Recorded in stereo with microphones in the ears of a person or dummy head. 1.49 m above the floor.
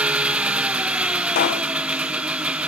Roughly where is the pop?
Left.